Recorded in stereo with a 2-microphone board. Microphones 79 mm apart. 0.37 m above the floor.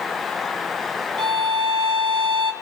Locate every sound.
1.2 s a violin: 75° right (ahead or behind), 1.1 m